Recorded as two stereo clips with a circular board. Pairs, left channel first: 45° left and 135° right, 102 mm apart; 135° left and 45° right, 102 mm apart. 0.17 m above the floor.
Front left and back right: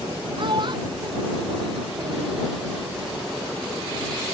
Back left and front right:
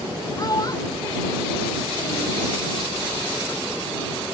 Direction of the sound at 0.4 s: 175° right.